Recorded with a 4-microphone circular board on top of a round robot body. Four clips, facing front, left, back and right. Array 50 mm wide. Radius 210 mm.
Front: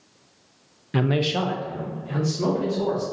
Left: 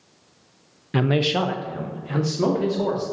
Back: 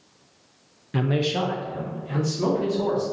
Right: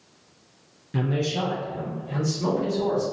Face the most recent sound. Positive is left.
turn(degrees=95)